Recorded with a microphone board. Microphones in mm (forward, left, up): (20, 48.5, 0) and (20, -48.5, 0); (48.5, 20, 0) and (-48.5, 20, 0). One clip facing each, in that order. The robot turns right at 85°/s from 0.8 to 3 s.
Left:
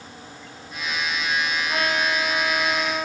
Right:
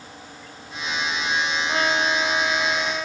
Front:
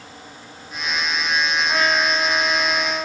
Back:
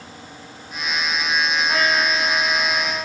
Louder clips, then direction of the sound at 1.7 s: Right 2 dB, front 1 dB; 85° right.